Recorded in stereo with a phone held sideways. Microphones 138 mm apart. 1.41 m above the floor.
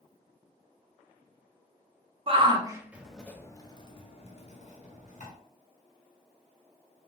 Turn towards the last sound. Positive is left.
turn(degrees=60)  # may be behind; listen again after turning